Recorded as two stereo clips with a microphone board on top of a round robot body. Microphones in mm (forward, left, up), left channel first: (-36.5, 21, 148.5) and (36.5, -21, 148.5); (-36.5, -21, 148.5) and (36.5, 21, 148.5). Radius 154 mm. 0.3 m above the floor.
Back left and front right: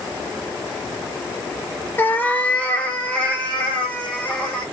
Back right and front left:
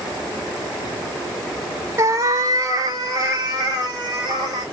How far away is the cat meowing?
About 0.6 m.